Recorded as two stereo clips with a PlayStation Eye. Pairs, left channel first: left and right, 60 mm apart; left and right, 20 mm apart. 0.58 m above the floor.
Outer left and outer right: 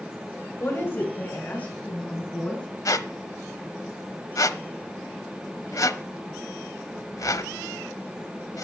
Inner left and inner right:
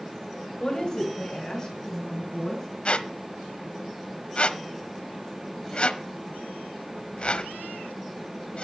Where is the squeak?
70° left (ahead or behind), 0.7 m.